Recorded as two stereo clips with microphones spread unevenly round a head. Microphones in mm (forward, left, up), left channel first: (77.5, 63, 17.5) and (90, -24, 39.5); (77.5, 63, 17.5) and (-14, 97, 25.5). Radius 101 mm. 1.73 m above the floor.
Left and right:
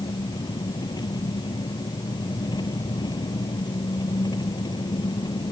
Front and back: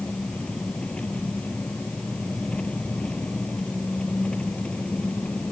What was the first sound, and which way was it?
An engine running, 60° left.